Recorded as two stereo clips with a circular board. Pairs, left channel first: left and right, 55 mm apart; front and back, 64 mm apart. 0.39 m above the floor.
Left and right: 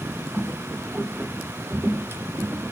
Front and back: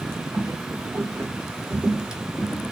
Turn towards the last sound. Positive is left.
turn(degrees=-65)